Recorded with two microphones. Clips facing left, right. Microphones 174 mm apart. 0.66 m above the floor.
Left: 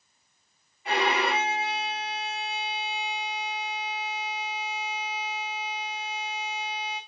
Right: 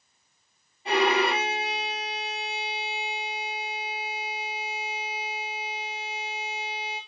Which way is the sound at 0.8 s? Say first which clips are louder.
Right 3 dB; 35° right (ahead or behind).